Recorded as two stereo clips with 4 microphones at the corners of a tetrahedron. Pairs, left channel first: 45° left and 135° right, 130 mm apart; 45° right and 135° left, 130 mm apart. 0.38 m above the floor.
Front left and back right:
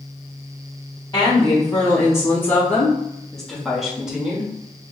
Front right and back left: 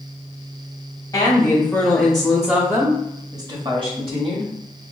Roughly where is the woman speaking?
Ahead.